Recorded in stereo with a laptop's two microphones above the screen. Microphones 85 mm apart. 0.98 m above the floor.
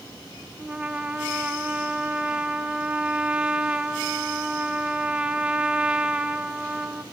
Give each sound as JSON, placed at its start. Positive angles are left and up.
{"t": 0.6, "sound": "a trumpet", "side_deg": -15, "distance_m": 0.8}